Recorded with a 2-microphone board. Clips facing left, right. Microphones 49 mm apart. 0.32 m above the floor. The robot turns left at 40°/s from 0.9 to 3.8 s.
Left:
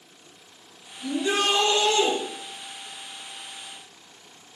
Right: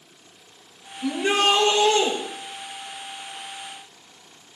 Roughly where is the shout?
Behind right.